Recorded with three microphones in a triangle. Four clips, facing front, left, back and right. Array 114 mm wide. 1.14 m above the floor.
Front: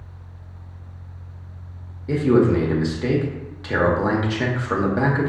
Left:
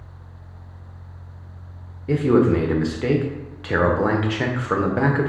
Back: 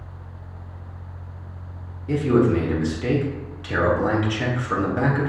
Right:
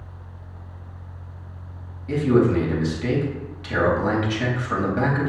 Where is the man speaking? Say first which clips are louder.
Left 2 dB, front 2 dB; 75° left, 0.9 m.